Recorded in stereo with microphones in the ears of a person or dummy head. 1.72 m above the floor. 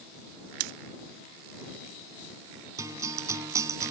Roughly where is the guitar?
Centre.